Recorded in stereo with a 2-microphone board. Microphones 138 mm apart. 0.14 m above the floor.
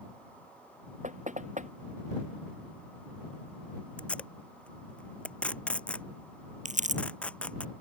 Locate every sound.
1.0 s knocking: 65° right (ahead or behind)
4.0 s tape being pulled: 10° left (ahead or behind)
6.7 s crumpling: 60° right (ahead or behind)